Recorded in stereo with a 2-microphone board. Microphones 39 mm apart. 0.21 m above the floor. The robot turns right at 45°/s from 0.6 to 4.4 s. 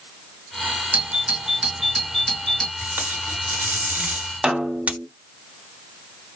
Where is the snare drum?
20° right (ahead or behind), 1.2 m.